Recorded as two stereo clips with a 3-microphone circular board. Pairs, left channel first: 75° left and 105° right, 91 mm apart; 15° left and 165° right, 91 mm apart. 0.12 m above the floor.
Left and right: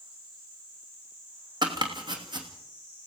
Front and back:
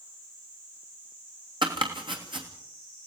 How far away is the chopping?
About 3 m.